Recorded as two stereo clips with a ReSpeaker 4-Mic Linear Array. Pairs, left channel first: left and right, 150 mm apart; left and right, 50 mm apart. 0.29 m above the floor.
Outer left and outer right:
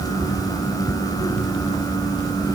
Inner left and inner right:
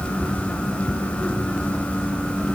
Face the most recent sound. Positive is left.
No sound to turn to.